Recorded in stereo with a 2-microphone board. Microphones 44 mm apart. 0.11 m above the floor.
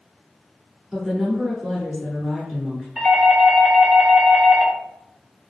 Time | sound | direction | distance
0.9 | a woman speaking | 10° right (ahead or behind) | 1.2 m
3.0 | a doorbell | 5° left (ahead or behind) | 1.8 m